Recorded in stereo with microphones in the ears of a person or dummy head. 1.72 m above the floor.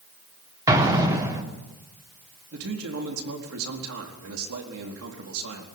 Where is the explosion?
15° right (ahead or behind), 3.5 m.